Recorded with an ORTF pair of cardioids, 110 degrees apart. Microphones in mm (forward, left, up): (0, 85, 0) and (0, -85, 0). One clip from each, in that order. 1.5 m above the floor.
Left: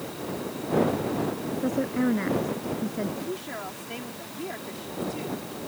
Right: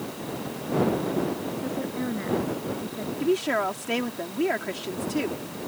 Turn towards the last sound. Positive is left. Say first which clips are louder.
# right 10 dB
turn(degrees=-65)